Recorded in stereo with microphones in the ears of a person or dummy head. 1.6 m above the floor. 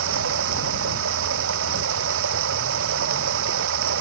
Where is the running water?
80° right.